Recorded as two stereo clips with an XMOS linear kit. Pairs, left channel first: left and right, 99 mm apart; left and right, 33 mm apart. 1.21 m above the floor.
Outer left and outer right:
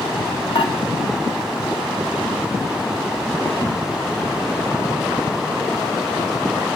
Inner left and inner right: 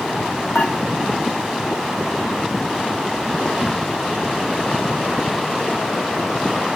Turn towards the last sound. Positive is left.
turn(degrees=55)  # may be behind; listen again after turning